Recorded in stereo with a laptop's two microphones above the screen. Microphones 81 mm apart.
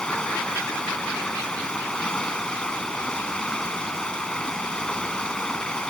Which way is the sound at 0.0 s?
10° left (ahead or behind).